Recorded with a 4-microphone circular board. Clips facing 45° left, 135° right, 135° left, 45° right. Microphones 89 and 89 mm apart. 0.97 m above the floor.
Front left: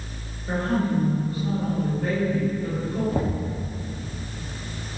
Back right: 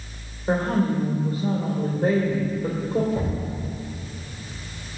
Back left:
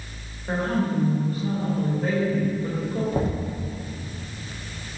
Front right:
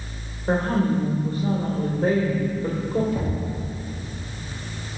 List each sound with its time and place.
0.5 s a woman speaking: 85° right, 3 m
3.1 s knocking: 85° left, 1.4 m